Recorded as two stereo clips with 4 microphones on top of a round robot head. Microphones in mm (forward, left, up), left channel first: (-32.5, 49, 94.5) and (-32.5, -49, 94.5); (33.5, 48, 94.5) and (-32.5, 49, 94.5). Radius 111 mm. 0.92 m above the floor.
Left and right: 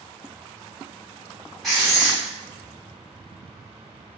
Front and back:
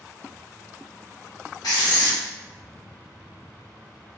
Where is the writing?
Straight ahead, 0.7 m.